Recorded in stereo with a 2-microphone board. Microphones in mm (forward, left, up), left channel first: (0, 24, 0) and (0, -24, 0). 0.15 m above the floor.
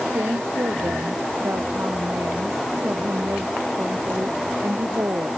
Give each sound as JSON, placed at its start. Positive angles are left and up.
{"t": 0.1, "sound": "a woman speaking", "side_deg": -70}